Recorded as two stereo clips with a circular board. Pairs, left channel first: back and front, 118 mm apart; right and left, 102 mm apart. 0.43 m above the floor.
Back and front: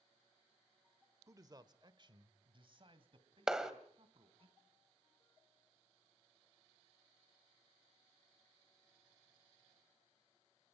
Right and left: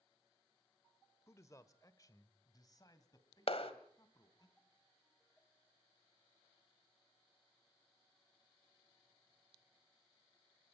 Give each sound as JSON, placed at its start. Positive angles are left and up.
{"t": 1.3, "sound": "a man speaking", "azimuth_deg": -45, "distance_m": 1.1}
{"t": 3.5, "sound": "a clap", "azimuth_deg": -85, "distance_m": 1.6}